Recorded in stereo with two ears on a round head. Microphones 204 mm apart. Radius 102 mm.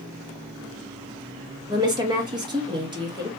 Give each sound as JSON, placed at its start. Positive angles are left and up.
{"t": 1.7, "sound": "a woman speaking", "side_deg": -20, "distance_m": 1.2}